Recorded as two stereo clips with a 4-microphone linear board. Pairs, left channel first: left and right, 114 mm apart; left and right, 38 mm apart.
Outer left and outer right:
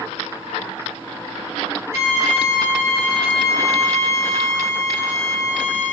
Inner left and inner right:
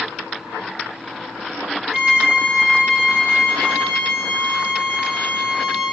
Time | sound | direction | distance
1.9 | a violin | 25° right (ahead or behind) | 1.1 m